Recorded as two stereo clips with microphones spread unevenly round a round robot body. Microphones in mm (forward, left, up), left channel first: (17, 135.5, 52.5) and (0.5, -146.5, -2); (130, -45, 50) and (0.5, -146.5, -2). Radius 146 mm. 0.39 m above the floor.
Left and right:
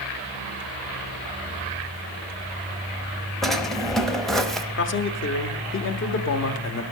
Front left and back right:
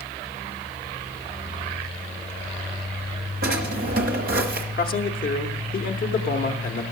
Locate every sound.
3.4 s a drawer: straight behind, 0.8 m
4.8 s a man speaking: 50° left, 1.0 m